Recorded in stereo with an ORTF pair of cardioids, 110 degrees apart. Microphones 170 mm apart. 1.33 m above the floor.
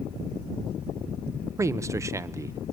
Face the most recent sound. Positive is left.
turn(degrees=-15)